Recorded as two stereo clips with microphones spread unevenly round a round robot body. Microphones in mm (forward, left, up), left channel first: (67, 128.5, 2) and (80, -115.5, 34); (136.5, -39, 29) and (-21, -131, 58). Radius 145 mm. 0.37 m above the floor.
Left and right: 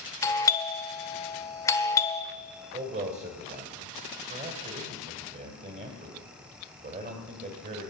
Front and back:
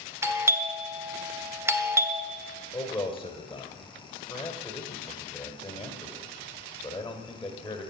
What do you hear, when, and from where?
0.2 s a doorbell: 135° left, 1.3 m
2.7 s a man speaking: 40° right, 2.5 m